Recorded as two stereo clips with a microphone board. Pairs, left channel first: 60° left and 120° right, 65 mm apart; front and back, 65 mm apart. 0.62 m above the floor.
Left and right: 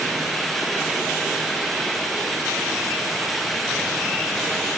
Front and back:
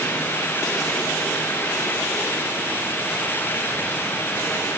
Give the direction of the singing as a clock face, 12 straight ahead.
No singing in this recording.